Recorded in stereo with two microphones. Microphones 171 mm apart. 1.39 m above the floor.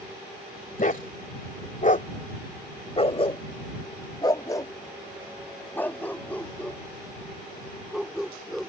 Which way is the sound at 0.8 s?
55° left (ahead or behind).